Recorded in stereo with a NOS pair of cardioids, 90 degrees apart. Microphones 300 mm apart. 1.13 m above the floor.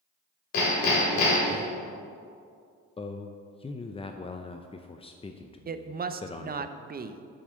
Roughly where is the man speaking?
Ahead.